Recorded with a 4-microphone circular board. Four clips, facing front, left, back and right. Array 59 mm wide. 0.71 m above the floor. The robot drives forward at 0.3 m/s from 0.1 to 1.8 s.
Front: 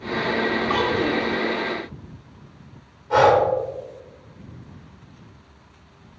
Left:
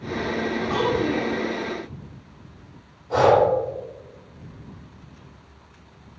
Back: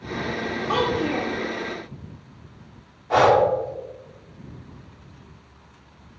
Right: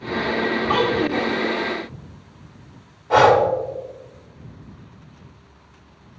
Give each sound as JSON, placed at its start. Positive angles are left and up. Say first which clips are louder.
{"t": 0.7, "sound": "a child speaking", "louder": "right 2 dB, back 3 dB", "azimuth_deg": -110, "distance_m": 1.8}
{"t": 3.1, "sound": "breathing", "louder": "right 3 dB, front 1 dB", "azimuth_deg": -115, "distance_m": 1.6}